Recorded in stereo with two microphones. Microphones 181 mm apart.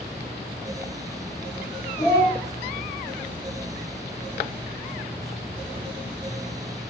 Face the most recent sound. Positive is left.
turn(degrees=40)  # may be behind; listen again after turning